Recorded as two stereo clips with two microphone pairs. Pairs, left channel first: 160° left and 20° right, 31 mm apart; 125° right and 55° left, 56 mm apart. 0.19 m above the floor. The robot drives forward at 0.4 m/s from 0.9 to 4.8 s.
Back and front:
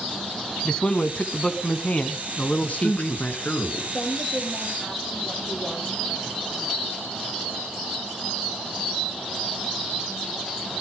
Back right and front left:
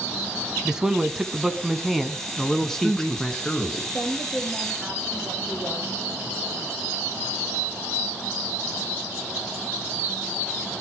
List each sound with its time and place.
0.7 s a man speaking: 120° left, 1.2 m; by 3.4 s 155° left, 1.8 m
2.6 s a man speaking: 150° left, 2.5 m; by 3.8 s 155° left, 3 m
3.9 s a woman speaking: 165° left, 8 m